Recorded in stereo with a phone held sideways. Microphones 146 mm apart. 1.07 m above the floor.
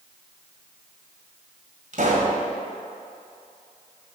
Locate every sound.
1.9 s a pop: 60° right (ahead or behind), 1.9 m